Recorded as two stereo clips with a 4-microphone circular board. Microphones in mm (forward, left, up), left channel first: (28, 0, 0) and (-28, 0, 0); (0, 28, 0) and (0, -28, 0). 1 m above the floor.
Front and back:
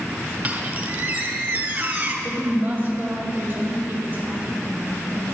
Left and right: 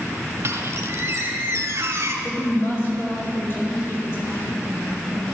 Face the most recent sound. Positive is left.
turn(degrees=130)